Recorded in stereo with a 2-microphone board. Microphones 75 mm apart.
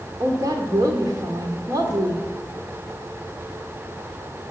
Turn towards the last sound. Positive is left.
turn(degrees=-55)  # may be behind; listen again after turning